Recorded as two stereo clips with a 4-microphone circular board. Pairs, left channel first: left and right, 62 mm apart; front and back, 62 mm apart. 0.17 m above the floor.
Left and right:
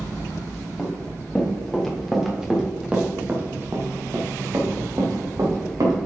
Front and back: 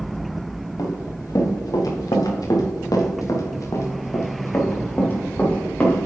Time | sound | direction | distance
0.8 | running footsteps | 15° left | 4 m